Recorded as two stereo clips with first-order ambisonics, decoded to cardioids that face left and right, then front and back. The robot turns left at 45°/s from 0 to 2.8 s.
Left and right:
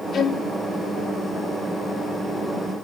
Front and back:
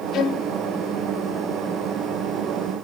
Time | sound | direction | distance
0.1 | a violin | 35° left | 0.6 m